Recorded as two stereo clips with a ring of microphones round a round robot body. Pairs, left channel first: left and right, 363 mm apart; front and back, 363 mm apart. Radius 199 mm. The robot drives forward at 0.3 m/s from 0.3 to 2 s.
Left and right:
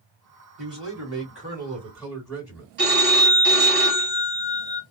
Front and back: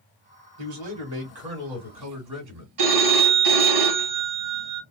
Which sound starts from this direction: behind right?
A phone ringing, at 2.8 s.